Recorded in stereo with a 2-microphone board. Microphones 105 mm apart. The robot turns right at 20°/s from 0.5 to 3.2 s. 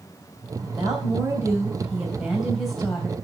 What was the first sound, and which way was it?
A woman speaking, 40° right.